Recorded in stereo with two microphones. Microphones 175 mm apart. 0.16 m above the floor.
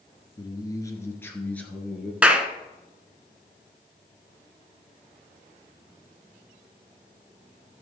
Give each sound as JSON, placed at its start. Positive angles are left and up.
{"t": 0.4, "sound": "a man speaking", "side_deg": 25, "distance_m": 2.0}
{"t": 2.2, "sound": "a clap", "side_deg": -5, "distance_m": 1.2}